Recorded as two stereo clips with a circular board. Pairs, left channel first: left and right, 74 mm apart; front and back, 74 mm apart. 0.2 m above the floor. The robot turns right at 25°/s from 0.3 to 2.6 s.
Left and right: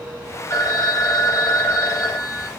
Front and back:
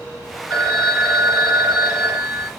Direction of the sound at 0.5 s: 75° left.